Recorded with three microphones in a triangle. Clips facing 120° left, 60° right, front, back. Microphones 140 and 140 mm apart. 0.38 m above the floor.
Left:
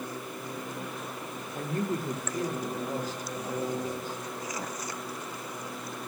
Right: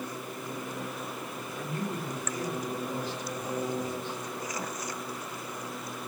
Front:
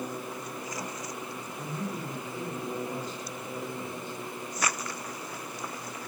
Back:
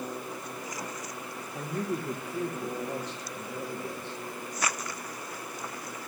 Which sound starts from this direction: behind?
A man speaking, at 1.6 s.